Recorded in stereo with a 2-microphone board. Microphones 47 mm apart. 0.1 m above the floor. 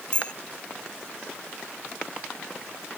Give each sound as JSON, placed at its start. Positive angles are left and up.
{"t": 0.1, "sound": "a bicycle bell", "side_deg": 20}